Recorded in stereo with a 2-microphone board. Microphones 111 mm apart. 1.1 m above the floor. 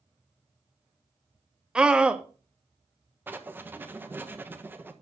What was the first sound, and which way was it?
A scream, 10° right (ahead or behind).